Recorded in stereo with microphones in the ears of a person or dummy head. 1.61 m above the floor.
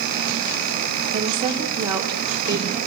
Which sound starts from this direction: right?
A woman speaking, at 1.1 s.